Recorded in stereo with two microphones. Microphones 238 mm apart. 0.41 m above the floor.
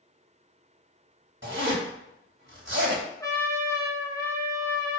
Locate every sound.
1.4 s a zipper: 55° right (ahead or behind), 2.5 m
3.2 s a trumpet: 15° left (ahead or behind), 1.4 m